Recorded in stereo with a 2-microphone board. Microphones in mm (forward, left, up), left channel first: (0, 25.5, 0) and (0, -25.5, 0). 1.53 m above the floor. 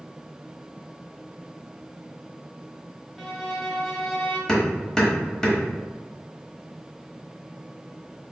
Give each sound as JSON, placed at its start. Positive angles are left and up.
{"t": 3.2, "sound": "a violin", "side_deg": 0, "distance_m": 1.1}
{"t": 4.5, "sound": "hammering", "side_deg": 10, "distance_m": 1.1}